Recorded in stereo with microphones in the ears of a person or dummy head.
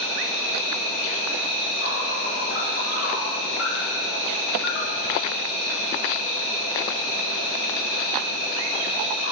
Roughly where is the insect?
Left.